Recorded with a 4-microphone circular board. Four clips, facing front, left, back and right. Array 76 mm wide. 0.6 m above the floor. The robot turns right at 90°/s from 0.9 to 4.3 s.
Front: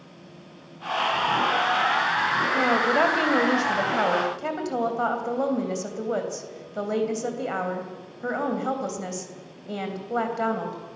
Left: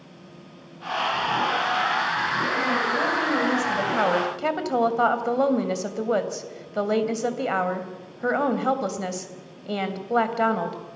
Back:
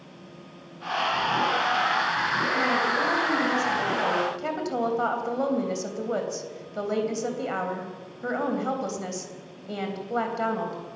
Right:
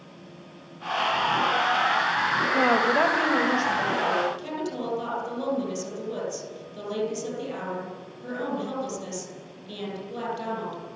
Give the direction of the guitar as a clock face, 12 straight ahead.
No guitar in this recording.